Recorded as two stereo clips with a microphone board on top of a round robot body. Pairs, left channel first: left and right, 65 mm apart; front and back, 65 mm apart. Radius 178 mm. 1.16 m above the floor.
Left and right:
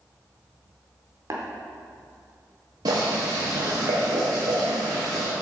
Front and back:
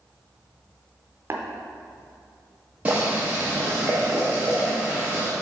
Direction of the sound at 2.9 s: 115° right.